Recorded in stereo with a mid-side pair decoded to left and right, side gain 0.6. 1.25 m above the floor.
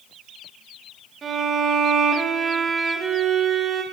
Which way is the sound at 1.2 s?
35° right.